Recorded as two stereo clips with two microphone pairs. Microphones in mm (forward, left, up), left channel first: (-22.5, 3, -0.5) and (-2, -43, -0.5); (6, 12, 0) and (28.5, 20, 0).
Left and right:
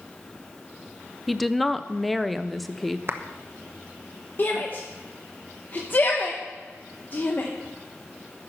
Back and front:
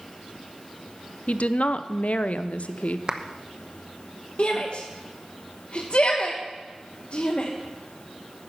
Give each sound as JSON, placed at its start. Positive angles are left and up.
{"t": 1.3, "sound": "a woman speaking", "azimuth_deg": -155, "distance_m": 0.6}
{"t": 3.1, "sound": "a clap", "azimuth_deg": -30, "distance_m": 0.8}
{"t": 4.4, "sound": "a shout", "azimuth_deg": 165, "distance_m": 1.2}